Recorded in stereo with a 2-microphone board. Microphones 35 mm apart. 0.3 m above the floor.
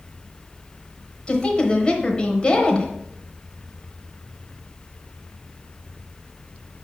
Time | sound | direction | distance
1.3 | a woman speaking | 30° left (ahead or behind) | 1.0 m